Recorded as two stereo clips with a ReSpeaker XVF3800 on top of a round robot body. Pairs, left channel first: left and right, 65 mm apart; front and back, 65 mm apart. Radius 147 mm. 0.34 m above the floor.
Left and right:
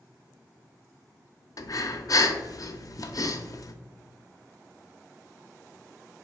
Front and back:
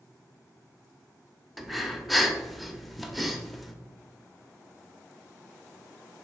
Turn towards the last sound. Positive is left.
turn(degrees=90)